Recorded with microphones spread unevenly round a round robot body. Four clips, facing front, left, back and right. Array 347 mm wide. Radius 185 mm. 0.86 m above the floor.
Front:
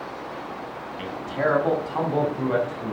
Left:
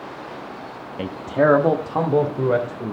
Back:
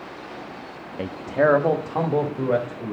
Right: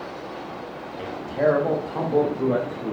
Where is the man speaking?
115° left, 1.0 m; by 2.9 s 90° left, 3 m.